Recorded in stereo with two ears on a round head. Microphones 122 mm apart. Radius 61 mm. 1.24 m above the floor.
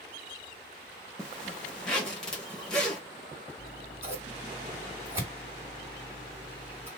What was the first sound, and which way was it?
A zipper, 5° left (ahead or behind).